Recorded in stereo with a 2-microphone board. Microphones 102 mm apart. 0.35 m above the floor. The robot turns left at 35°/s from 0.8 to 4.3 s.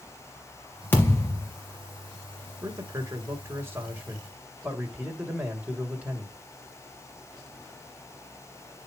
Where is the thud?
20° left (ahead or behind), 3 m; by 1.5 s 40° left (ahead or behind), 3 m.